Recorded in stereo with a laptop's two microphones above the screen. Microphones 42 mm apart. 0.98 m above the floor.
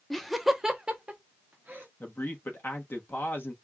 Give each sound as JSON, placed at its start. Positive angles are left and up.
{"t": 0.1, "sound": "laughter", "side_deg": 5, "distance_m": 0.9}
{"t": 2.0, "sound": "a man speaking", "side_deg": 55, "distance_m": 1.2}